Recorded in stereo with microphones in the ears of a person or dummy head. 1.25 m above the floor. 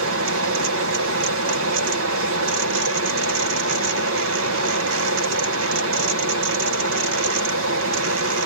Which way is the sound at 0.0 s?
70° right (ahead or behind).